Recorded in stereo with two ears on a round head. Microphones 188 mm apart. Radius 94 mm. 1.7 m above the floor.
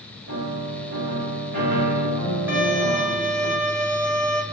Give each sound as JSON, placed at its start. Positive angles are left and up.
{"t": 0.3, "sound": "a piano", "side_deg": -80, "distance_m": 4.0}
{"t": 2.5, "sound": "a violin", "side_deg": -10, "distance_m": 1.9}